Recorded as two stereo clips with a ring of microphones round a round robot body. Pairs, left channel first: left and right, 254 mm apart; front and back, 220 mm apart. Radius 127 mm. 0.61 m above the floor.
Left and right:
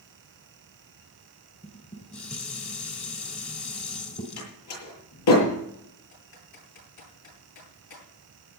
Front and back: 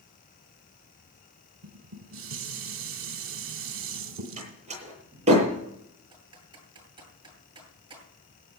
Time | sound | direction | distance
1.6 | dishes clattering | 155° left | 1.7 m
4.4 | a door slam | 120° left | 8.5 m
6.1 | typing on a keyboard | 110° left | 10 m